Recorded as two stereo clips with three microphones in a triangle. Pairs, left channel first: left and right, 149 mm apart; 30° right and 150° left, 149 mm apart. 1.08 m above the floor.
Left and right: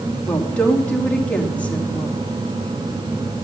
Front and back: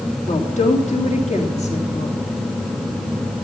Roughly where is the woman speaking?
Ahead.